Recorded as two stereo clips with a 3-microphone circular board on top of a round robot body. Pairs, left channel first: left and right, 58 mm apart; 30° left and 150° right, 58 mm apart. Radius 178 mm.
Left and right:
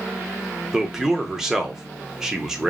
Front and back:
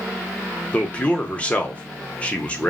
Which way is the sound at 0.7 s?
20° right.